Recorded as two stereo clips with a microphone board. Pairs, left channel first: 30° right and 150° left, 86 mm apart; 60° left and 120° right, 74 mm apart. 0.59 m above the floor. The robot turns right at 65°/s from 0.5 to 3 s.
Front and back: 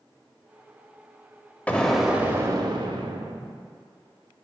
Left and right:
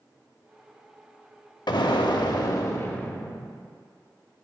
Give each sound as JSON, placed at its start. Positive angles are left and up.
{"t": 1.7, "sound": "an explosion", "azimuth_deg": 45, "distance_m": 0.6}